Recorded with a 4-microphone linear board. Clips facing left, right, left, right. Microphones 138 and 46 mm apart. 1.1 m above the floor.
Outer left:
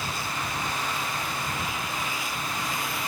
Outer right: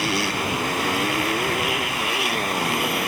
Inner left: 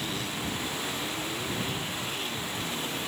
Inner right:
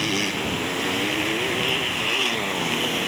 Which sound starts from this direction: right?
A motorcycle, at 0.0 s.